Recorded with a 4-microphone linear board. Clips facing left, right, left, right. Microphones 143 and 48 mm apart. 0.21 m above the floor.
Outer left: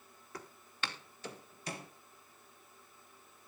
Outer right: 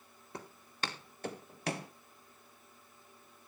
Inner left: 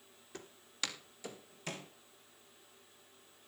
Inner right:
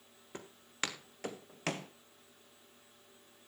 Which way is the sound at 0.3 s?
25° right (ahead or behind).